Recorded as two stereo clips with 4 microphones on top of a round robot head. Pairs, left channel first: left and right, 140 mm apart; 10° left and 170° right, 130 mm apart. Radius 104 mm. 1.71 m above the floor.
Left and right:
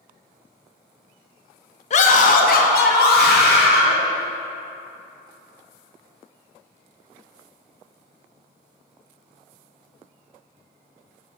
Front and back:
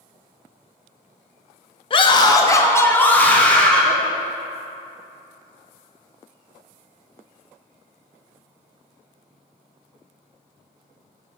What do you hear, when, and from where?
1.9 s a scream: 55° left, 0.6 m; by 4.0 s 95° left, 1.5 m